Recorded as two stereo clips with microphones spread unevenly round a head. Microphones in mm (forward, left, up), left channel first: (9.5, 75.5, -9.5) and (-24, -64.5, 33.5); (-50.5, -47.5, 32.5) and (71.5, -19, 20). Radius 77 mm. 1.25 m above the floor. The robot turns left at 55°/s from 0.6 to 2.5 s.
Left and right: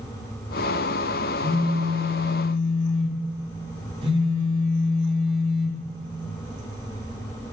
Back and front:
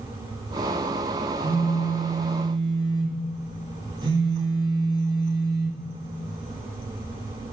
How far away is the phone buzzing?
About 2.5 m.